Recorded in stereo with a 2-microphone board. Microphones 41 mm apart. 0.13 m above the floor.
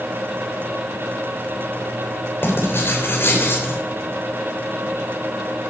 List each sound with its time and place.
2.4 s writing: 55° left (ahead or behind), 6.5 m